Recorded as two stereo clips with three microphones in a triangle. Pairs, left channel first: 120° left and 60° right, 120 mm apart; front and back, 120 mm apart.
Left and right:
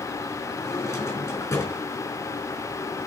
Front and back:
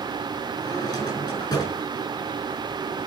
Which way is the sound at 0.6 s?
50° left.